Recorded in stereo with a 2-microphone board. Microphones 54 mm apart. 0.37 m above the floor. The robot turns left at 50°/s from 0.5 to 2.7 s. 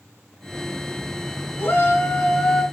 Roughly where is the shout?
Ahead left.